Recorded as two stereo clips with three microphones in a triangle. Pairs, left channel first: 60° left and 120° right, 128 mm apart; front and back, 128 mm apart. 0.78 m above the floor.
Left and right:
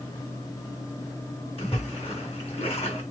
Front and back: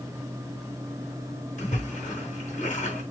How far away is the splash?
About 3 m.